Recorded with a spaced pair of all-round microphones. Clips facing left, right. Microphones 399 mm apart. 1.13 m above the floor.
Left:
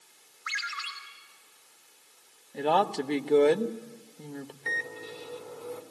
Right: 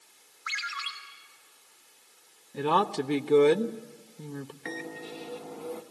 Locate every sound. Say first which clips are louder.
0.5 s a ringtone: even; 5° left (ahead or behind), 4.5 m
2.5 s a woman speaking: even; 20° right (ahead or behind), 0.8 m
4.7 s a microwave: right 3 dB; 85° right, 1.1 m